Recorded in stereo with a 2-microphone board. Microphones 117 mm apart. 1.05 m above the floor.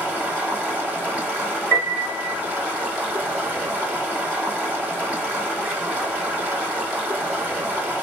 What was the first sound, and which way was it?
Running water, 10° right (ahead or behind).